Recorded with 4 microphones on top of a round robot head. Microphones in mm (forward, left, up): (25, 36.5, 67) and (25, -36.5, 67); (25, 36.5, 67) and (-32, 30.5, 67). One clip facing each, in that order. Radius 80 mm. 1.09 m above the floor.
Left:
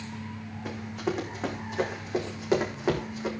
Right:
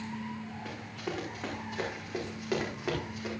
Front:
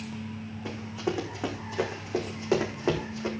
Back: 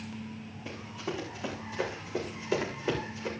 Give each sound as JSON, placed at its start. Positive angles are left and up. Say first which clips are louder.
{"t": 0.7, "sound": "running footsteps", "louder": "left 9 dB, front 6 dB", "azimuth_deg": 20, "distance_m": 5.5}